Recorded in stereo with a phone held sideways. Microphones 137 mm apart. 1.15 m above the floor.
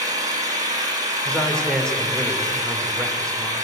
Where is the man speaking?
5° left (ahead or behind), 3.5 m.